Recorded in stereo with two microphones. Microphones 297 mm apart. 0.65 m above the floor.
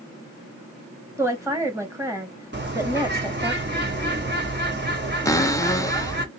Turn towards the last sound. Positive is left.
turn(degrees=10)  # may be behind; listen again after turning